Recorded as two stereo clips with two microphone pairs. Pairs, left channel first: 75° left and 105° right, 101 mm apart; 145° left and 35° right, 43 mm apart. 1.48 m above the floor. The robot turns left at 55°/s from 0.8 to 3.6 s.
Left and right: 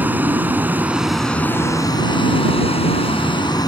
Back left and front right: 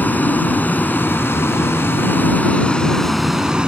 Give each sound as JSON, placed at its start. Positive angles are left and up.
{"t": 0.0, "sound": "a vehicle", "azimuth_deg": -175}